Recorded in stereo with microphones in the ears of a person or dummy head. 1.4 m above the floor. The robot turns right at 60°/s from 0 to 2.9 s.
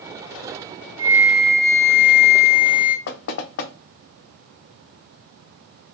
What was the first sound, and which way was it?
A flute, 25° right.